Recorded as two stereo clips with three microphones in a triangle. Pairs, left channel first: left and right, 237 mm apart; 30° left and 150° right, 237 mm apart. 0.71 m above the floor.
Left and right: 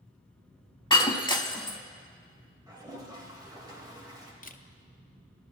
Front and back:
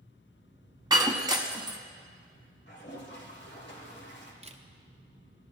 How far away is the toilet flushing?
About 1.6 m.